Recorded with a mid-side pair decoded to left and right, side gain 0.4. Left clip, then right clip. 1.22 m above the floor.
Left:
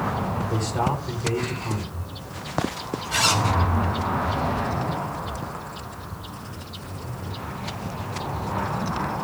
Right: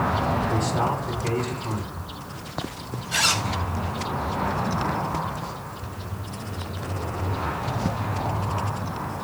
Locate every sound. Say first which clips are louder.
0.5 s a man speaking: right 1 dB; 30° left, 7.5 m
3.1 s a zipper: left 1 dB; 20° left, 5 m